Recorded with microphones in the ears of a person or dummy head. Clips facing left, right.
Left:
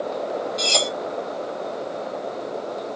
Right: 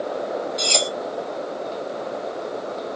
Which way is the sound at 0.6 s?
Centre (ahead or behind).